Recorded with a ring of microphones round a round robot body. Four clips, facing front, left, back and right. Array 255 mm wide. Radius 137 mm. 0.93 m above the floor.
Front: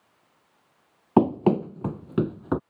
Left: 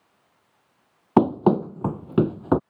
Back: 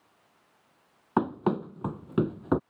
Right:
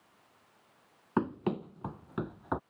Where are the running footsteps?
55° left; by 2.6 s 95° left.